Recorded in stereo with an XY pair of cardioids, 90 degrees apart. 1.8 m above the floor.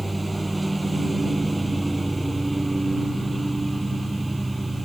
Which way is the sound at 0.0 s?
20° right.